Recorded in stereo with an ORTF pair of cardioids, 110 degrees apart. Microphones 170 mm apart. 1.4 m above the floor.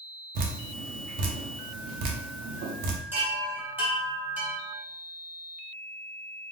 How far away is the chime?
About 1.3 m.